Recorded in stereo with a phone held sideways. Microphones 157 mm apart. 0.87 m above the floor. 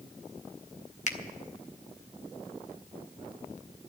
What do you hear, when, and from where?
1.1 s a finger snap: 50° left (ahead or behind), 1.0 m